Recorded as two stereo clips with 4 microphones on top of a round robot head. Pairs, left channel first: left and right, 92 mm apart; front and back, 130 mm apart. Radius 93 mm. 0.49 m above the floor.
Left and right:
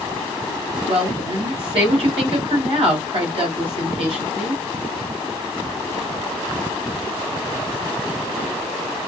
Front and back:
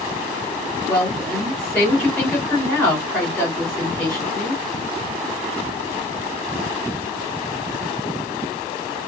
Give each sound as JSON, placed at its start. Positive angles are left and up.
{"t": 0.9, "sound": "a woman speaking", "azimuth_deg": -70, "distance_m": 3.0}